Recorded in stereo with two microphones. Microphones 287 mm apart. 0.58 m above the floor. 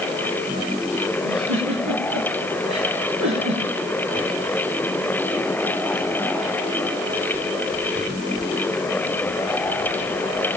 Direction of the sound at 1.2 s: 85° right.